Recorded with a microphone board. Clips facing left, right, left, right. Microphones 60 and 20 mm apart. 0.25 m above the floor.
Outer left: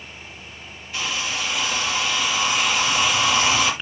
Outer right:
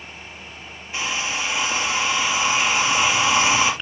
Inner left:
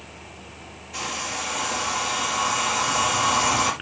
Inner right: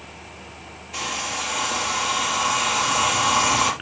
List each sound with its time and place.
0.9 s a hair dryer: 25° right (ahead or behind), 3 m